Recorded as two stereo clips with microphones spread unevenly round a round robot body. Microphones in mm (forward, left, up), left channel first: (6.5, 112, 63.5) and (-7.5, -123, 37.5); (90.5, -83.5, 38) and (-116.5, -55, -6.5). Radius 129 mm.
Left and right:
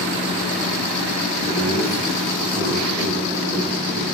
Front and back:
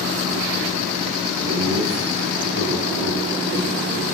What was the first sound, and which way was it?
Laughter, 160° right.